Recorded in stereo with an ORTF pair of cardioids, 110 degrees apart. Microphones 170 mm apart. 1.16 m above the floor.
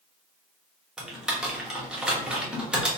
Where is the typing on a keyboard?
5° right, 0.9 m.